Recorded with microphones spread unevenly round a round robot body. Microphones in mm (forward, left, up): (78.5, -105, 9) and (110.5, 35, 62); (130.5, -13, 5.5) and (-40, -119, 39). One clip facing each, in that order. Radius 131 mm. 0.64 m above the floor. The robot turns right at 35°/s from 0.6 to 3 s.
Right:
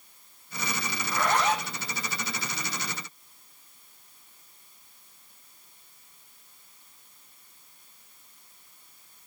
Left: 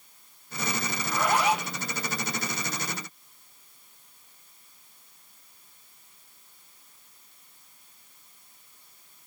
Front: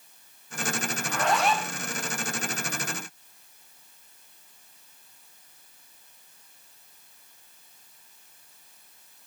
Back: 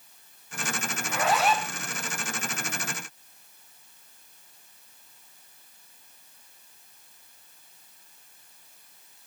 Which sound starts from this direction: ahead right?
A zipper, at 1.0 s.